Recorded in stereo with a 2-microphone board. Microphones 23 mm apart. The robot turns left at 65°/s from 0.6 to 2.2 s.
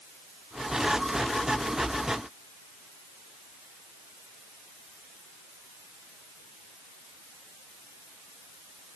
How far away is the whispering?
No whispering in this recording.